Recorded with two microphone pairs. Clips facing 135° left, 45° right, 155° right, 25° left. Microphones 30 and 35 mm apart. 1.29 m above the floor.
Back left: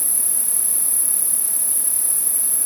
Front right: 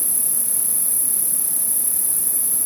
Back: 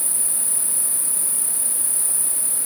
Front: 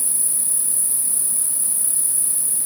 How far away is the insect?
About 1.5 m.